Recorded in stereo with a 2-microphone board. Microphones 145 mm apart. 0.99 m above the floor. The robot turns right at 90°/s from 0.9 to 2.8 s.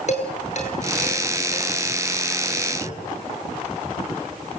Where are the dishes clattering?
55° left (ahead or behind), 9.5 m.